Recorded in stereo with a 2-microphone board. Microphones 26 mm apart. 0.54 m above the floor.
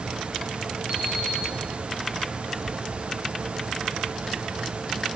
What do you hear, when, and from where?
0.9 s an alarm clock: 50° right (ahead or behind), 5 m